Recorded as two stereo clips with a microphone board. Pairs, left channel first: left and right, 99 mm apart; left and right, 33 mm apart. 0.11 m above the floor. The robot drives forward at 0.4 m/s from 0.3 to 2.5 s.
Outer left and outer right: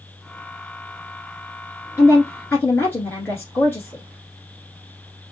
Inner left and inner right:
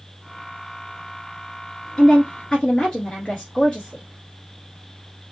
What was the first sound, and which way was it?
A woman speaking, 25° left (ahead or behind).